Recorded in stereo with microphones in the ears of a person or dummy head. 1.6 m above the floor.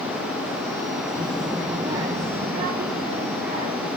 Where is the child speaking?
15° left (ahead or behind), 0.7 m; by 3.9 s 50° right (ahead or behind), 3 m.